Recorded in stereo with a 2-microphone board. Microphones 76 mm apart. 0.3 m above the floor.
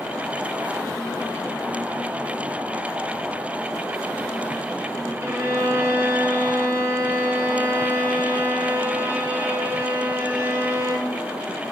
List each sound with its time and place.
5.2 s a violin: 30° right (ahead or behind), 1.1 m